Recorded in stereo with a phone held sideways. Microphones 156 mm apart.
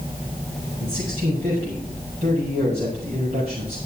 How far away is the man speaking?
About 6 m.